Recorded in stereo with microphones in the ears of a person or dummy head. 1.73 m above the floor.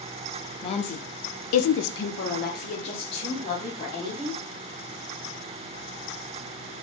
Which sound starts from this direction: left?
A woman speaking, at 0.6 s.